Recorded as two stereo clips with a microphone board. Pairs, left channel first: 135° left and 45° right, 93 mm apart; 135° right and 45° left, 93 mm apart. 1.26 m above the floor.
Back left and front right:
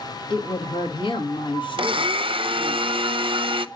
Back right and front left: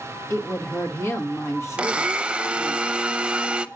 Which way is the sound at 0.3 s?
165° left.